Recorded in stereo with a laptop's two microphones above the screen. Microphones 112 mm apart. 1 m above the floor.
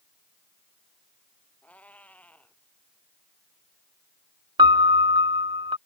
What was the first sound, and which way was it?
A cat meowing, 10° left (ahead or behind).